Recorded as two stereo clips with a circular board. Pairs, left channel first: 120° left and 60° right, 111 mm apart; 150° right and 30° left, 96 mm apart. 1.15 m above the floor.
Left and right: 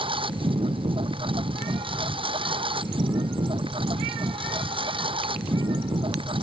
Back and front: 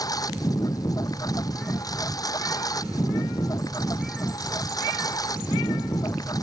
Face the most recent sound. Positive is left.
turn(degrees=-100)